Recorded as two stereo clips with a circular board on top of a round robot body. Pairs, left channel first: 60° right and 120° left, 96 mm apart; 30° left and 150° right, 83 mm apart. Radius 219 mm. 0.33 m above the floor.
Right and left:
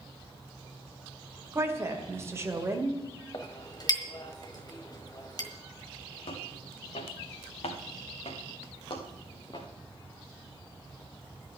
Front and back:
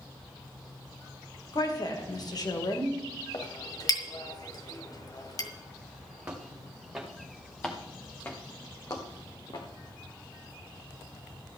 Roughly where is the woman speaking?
Ahead left.